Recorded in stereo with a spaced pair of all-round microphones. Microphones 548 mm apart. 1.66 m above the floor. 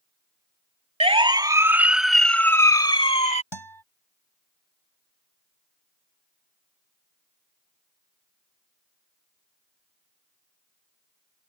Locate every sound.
1.0 s a siren: 10° right (ahead or behind); by 3.4 s 15° left (ahead or behind)
3.5 s a guitar: 50° left (ahead or behind)